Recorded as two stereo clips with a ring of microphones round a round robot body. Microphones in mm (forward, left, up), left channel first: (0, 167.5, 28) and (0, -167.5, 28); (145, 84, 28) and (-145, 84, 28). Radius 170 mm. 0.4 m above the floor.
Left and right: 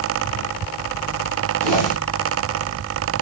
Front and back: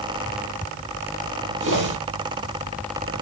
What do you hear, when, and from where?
1.6 s a whoosh: 155° left, 3.5 m